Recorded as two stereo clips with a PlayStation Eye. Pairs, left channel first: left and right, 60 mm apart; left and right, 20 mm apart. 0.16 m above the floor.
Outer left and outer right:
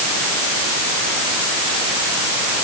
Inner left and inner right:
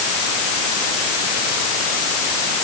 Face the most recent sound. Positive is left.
No sound to turn to.